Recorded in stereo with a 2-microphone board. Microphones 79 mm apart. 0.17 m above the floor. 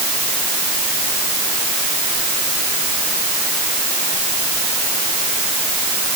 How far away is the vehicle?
No vehicle in this recording.